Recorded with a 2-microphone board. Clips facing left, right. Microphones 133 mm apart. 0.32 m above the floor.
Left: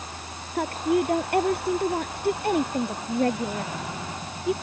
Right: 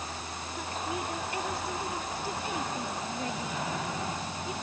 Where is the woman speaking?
65° left (ahead or behind).